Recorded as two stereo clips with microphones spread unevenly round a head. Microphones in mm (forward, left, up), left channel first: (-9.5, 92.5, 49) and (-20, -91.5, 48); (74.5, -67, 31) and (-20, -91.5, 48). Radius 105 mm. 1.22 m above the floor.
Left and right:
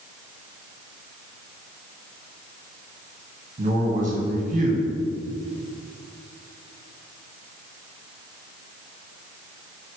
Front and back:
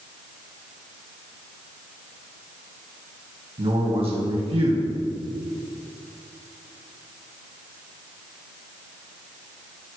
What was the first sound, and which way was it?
A man speaking, 140° right.